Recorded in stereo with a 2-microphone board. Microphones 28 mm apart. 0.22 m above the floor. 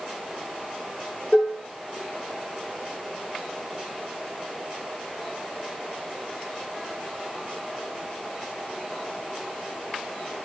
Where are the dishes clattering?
45° left (ahead or behind), 1.8 m.